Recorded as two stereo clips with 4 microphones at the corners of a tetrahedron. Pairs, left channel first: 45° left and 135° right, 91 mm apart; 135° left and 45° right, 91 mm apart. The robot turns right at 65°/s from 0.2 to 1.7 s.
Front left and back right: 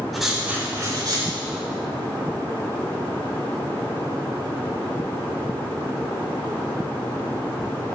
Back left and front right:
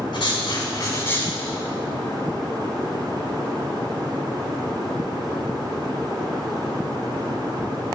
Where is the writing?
135° left, 3 m; by 1.4 s 150° right, 3 m.